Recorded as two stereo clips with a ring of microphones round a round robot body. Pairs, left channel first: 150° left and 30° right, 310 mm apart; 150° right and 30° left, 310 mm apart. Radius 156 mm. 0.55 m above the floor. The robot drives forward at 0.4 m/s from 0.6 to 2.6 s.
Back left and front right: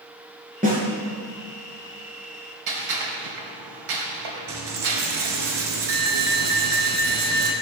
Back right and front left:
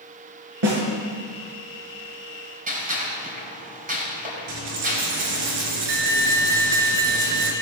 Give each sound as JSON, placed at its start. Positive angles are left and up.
{"t": 0.6, "sound": "a snare drum", "azimuth_deg": 35, "distance_m": 5.0}
{"t": 2.7, "sound": "a gunshot", "azimuth_deg": -35, "distance_m": 4.0}
{"t": 4.5, "sound": "a dropped coin", "azimuth_deg": 20, "distance_m": 3.0}